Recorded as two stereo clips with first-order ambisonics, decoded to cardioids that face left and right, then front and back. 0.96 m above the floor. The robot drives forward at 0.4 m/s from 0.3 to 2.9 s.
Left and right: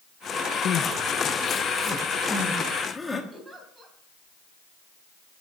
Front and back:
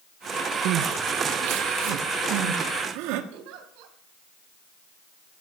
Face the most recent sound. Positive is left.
turn(degrees=-175)